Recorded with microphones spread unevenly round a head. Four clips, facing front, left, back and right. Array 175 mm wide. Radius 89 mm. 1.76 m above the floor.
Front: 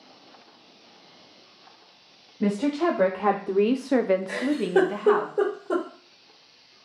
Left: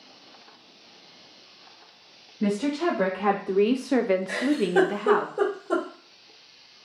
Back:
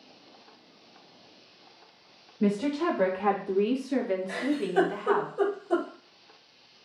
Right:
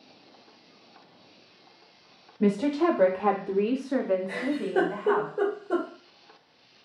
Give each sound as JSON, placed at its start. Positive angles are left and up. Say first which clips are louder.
{"t": 2.4, "sound": "a woman speaking", "louder": "right 2 dB, front 3 dB", "azimuth_deg": -40, "distance_m": 1.0}
{"t": 4.3, "sound": "a giggle", "louder": "left 5 dB, front 5 dB", "azimuth_deg": 60, "distance_m": 1.5}